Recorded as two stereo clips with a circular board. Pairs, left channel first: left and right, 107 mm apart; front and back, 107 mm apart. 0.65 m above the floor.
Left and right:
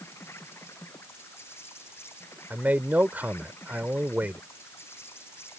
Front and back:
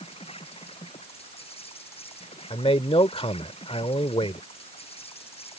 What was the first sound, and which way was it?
An insect, 20° left.